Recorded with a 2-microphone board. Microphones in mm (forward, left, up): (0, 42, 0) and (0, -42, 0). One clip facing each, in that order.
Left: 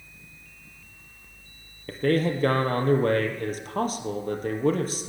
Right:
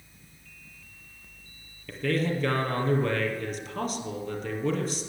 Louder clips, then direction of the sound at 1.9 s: Left 4 dB; 45° left (ahead or behind).